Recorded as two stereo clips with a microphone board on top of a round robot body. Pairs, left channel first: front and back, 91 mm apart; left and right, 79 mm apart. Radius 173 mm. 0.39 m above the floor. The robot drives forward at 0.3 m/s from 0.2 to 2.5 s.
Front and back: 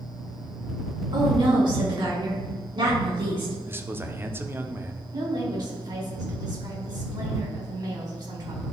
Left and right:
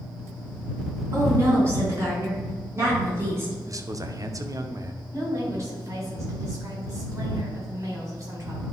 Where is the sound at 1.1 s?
145° right, 4 m; by 3.5 s 150° right, 4.5 m.